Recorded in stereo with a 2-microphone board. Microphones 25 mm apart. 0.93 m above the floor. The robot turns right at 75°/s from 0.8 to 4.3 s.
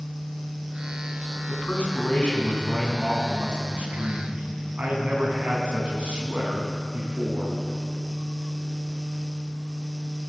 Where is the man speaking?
90° left, 9 m; by 7.5 s 60° right, 9 m.